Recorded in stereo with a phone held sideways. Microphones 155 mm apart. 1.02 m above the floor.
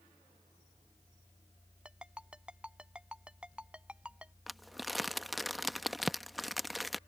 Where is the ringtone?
5° right (ahead or behind).